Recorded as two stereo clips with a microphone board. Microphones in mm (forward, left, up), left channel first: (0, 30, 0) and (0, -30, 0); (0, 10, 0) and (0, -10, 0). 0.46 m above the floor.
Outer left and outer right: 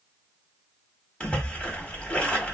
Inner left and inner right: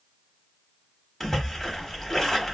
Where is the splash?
20° left (ahead or behind), 0.9 m.